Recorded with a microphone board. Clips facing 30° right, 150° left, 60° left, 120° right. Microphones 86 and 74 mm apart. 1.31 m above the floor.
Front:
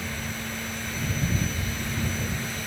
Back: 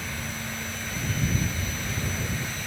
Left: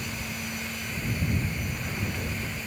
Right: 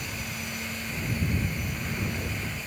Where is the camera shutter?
I don't hear a camera shutter.